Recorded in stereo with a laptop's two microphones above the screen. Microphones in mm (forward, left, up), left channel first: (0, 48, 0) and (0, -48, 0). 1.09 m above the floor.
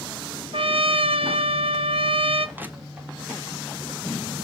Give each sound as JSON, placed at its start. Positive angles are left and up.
{"t": 0.5, "sound": "a trumpet", "side_deg": -75, "distance_m": 0.6}
{"t": 2.6, "sound": "crushing", "side_deg": -20, "distance_m": 0.5}